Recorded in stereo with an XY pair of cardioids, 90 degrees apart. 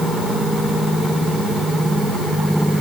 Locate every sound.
Only background noise.